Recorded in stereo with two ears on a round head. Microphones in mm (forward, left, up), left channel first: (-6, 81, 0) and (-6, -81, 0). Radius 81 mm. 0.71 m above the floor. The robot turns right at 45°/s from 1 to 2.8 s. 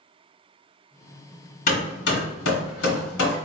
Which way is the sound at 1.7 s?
45° left (ahead or behind).